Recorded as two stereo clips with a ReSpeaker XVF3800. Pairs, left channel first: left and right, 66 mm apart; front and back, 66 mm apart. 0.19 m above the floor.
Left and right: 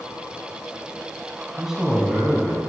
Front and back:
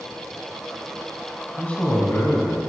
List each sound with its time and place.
1.6 s a man speaking: 20° right, 1.4 m; by 2.6 s 5° right, 1.7 m